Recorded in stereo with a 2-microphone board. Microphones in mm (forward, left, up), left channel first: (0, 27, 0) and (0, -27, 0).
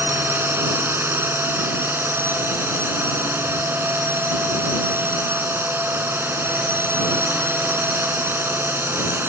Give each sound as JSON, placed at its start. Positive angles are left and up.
{"t": 0.0, "sound": "a drone", "side_deg": -45}